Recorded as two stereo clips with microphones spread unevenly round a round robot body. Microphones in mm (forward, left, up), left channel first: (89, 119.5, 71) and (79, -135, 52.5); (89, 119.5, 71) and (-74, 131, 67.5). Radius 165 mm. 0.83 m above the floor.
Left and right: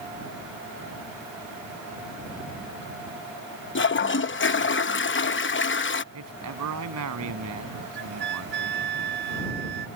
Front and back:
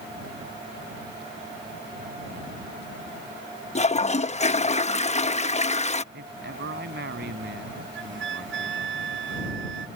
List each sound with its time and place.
3.8 s a toilet flushing: 45° left
6.1 s a man speaking: 135° right
8.0 s a flute: 155° right